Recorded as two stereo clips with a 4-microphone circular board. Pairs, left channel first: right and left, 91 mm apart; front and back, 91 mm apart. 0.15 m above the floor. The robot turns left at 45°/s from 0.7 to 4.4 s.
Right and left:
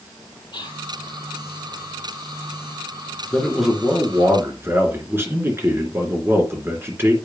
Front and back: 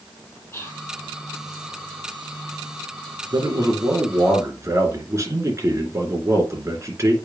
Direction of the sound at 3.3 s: 170° right.